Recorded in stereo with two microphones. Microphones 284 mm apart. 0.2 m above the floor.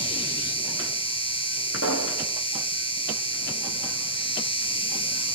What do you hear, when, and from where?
0.0 s an insect: 20° left (ahead or behind), 1.4 m
1.7 s a pop: 55° right (ahead or behind), 5 m